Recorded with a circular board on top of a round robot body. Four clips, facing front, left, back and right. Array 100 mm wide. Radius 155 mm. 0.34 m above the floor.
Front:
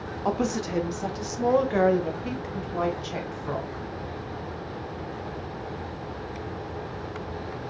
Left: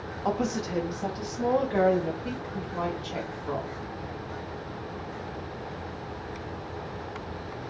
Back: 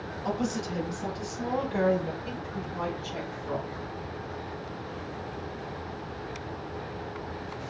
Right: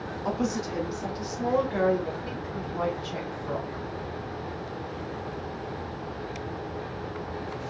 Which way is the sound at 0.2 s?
10° left.